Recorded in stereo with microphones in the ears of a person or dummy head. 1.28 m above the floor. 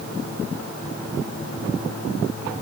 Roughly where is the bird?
I don't hear a bird.